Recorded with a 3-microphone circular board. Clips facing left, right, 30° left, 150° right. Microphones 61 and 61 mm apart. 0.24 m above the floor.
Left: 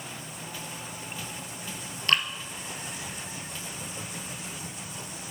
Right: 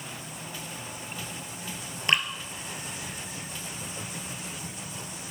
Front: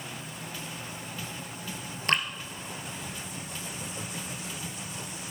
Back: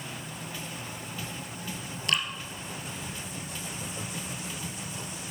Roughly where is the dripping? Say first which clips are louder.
Even, front 2 dB; ahead.